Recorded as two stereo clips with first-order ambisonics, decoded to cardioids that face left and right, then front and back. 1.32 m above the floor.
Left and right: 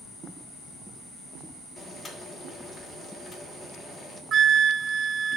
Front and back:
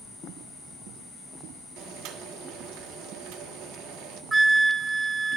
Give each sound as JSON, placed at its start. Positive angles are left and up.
{"t": 1.8, "sound": "boiling", "azimuth_deg": 160, "distance_m": 1.2}
{"t": 4.3, "sound": "a flute", "azimuth_deg": -110, "distance_m": 0.6}